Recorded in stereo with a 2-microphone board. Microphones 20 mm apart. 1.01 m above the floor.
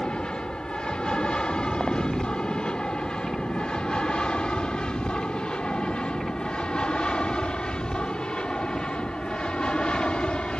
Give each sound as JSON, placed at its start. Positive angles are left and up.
{"t": 0.0, "sound": "an aircraft", "side_deg": 50}